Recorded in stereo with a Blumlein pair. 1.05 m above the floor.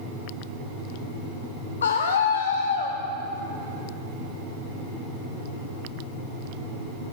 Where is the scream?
70° left, 0.6 m.